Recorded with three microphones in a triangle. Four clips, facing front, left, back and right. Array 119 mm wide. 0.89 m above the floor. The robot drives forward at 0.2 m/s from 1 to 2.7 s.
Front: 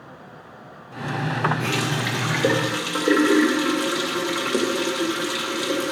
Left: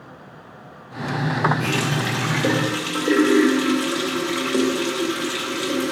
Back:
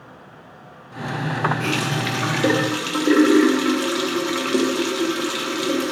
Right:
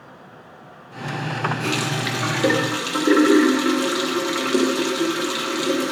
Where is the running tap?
140° right, 1.0 m; by 5.9 s 145° right, 1.1 m.